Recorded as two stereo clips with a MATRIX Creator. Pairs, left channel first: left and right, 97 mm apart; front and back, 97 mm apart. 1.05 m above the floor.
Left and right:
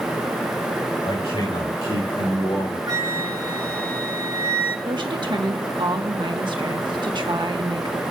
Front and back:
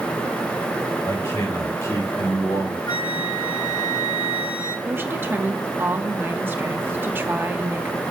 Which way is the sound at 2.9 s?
45° right.